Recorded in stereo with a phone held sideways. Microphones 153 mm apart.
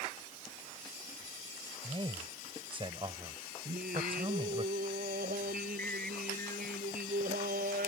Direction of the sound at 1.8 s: 35° right (ahead or behind).